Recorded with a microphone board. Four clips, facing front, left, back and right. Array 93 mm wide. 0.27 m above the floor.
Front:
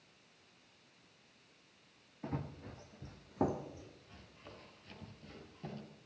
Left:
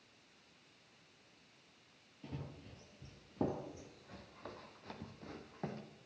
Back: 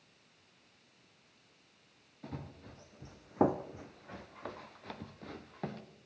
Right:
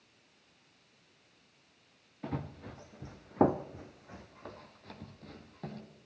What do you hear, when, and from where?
2.2 s running footsteps: 70° right, 1.6 m; by 5.8 s 160° left, 2.5 m